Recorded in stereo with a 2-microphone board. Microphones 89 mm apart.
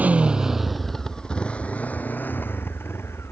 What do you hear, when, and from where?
0.0 s a motorcycle: 15° right (ahead or behind); by 3.3 s 30° left (ahead or behind)